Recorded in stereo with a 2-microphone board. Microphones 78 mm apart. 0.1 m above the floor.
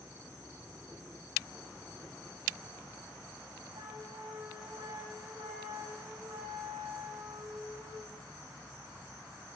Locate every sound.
3.8 s a flute: 75° right (ahead or behind), 8.5 m